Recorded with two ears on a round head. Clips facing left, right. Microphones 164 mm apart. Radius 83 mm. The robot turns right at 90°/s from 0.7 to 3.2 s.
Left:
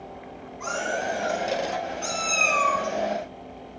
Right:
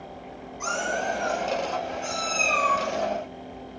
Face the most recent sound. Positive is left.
turn(degrees=5)  # may be behind; listen again after turning